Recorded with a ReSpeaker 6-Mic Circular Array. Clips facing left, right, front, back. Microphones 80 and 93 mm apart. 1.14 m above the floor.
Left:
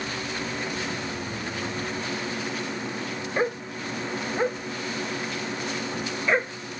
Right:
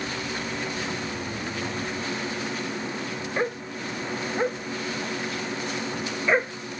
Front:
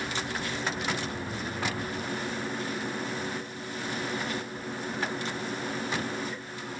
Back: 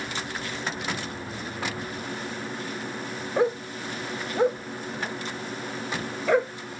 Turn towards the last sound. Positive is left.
turn(degrees=-175)